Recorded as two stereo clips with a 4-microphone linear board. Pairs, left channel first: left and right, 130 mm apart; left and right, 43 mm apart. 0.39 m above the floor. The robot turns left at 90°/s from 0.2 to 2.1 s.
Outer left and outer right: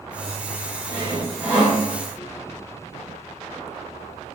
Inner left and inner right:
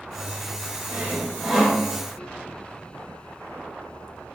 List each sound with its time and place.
0.9 s sawing: 110° right, 1.5 m; by 1.8 s 165° left, 1.5 m